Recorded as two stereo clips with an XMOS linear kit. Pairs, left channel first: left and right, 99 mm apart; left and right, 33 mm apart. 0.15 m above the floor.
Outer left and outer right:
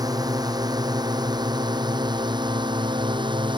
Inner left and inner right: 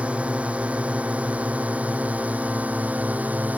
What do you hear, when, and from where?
0.0 s a drone: 40° right (ahead or behind); by 3.6 s 50° right (ahead or behind)